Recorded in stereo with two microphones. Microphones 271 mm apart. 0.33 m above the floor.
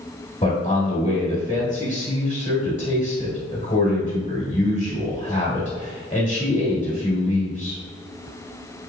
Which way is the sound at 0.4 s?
25° left (ahead or behind).